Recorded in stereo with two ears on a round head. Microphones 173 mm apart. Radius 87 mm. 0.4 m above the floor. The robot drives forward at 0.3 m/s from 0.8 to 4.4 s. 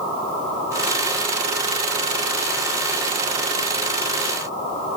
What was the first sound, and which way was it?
Only background noise.